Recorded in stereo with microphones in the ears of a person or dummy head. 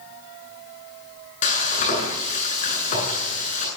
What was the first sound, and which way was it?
Frying, 40° left (ahead or behind).